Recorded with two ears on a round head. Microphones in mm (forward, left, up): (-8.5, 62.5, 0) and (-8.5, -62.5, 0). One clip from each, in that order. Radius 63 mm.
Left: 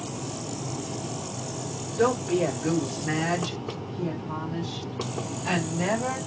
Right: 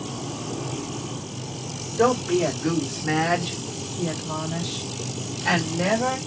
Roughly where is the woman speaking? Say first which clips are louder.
Right 3 dB; centre.